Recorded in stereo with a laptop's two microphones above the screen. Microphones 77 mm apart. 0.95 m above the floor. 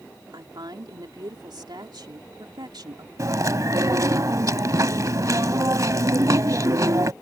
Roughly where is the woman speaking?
Right.